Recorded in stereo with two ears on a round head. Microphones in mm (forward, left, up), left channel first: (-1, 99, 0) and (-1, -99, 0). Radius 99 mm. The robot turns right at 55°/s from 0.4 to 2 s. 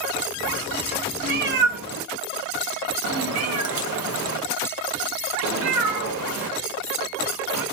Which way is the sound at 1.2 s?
35° right (ahead or behind).